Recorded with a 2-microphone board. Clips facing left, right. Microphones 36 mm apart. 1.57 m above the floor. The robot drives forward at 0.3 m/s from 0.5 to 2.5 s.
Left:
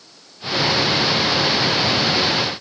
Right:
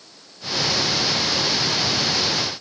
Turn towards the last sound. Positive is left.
No sound to turn to.